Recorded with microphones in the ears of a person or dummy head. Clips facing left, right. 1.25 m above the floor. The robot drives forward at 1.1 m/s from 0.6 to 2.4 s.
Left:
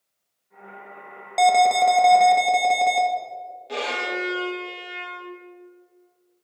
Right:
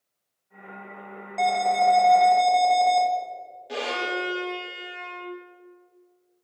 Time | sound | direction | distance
1.4 | an alarm | 70° left (ahead or behind) | 1.2 m
3.7 | a violin | 10° right (ahead or behind) | 3 m